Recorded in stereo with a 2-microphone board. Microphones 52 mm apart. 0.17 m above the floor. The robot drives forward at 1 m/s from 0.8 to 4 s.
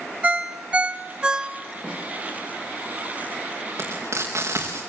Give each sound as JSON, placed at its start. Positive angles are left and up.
{"t": 0.2, "sound": "a ringtone", "side_deg": -25, "distance_m": 0.6}
{"t": 1.8, "sound": "a snare drum", "side_deg": 15, "distance_m": 8.0}
{"t": 3.8, "sound": "frying", "side_deg": -60, "distance_m": 4.5}